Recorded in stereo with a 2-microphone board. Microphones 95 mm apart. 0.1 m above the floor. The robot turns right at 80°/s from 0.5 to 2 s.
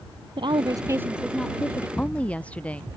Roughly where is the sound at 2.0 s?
Centre.